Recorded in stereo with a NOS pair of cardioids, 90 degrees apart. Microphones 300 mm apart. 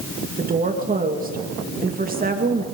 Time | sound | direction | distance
0.4 | a woman speaking | 25° right | 2.5 m